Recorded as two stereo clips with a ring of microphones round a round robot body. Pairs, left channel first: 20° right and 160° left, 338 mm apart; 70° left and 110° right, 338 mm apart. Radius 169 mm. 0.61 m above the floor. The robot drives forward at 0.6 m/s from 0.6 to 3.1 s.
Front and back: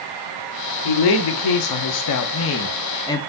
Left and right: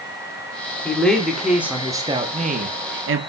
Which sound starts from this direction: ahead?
A woman speaking, at 0.8 s.